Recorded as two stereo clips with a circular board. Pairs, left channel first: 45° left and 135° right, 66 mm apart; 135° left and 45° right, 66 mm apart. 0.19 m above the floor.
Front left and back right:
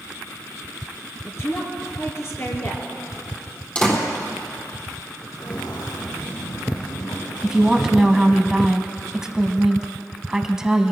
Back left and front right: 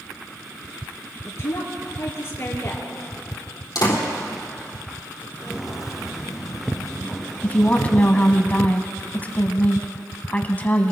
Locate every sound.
1.2 s a woman speaking: 90° left, 3.5 m
3.8 s a door slam: 110° left, 4 m
5.4 s footsteps: 35° left, 3.5 m; by 8.4 s 55° left, 5 m
7.4 s a woman speaking: 155° left, 1.1 m